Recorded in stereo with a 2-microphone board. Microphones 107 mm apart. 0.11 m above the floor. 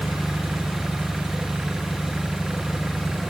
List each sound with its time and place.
0.0 s an engine running: 5° right (ahead or behind)